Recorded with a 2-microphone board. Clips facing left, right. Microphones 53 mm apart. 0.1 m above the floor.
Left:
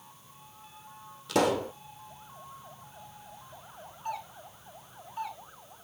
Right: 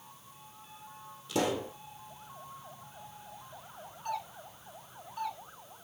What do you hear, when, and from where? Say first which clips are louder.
1.3 s a pop: left 5 dB; 70° left (ahead or behind), 1.3 m
4.0 s a doorbell: even; 20° left (ahead or behind), 2.0 m